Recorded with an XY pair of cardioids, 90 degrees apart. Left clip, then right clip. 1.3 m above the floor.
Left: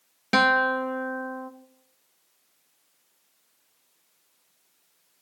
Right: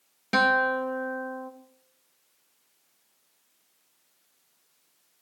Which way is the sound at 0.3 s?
30° left.